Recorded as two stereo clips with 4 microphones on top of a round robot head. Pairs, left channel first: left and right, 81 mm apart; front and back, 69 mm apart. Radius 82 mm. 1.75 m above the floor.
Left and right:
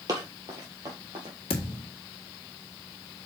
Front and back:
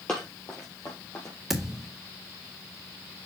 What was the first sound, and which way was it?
Running footsteps, 80° right.